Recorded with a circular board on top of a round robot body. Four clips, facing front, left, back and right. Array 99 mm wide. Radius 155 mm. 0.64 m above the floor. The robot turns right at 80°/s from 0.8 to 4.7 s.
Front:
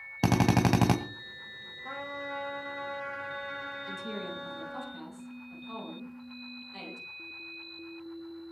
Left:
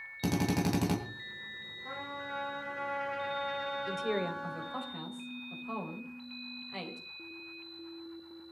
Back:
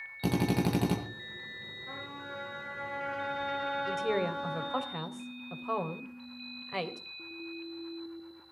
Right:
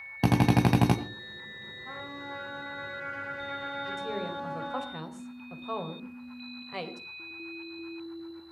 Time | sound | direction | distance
0.2 | a drill | 45° right | 2.5 m
1.9 | a trumpet | 15° left | 9 m
3.9 | a woman speaking | 135° left | 3.5 m